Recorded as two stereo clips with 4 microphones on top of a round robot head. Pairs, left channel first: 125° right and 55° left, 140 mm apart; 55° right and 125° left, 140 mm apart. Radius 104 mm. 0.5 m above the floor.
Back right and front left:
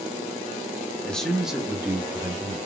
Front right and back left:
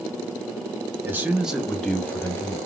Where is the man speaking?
165° left, 0.9 m; by 2.6 s 5° left, 1.1 m.